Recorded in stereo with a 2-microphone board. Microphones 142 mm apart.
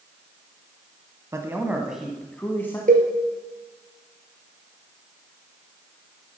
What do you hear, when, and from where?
1.3 s a man speaking: 20° right (ahead or behind), 1.3 m; by 2.8 s 15° left (ahead or behind), 1.5 m
2.9 s a cowbell: 70° right (ahead or behind), 3 m